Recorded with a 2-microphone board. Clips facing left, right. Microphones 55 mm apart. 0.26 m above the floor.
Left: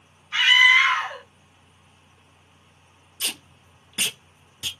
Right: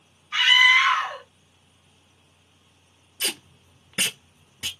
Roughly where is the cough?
No cough in this recording.